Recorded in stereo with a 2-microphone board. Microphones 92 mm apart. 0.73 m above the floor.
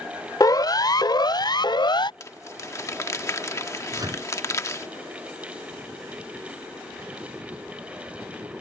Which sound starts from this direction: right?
A microwave, at 3.9 s.